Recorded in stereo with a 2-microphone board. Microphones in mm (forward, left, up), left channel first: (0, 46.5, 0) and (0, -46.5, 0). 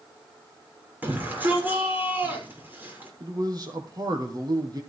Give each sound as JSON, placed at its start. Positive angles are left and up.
{"t": 1.0, "sound": "a shout", "side_deg": -20, "distance_m": 6.0}
{"t": 3.2, "sound": "a man speaking", "side_deg": -45, "distance_m": 2.5}